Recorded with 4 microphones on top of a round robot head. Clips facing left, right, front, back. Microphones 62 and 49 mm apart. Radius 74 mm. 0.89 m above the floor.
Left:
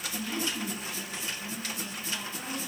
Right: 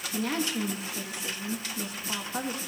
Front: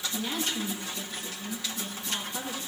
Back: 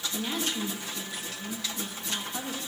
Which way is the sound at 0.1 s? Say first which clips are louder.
Right 5 dB, back 1 dB; 100° right.